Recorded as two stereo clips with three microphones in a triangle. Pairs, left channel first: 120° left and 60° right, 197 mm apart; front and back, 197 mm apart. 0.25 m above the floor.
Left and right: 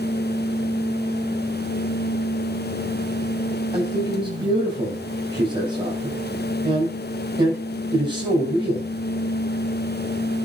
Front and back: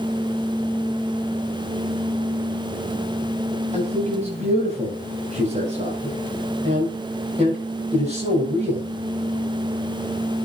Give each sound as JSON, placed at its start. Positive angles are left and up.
{"t": 3.7, "sound": "a man speaking", "azimuth_deg": -125, "distance_m": 9.5}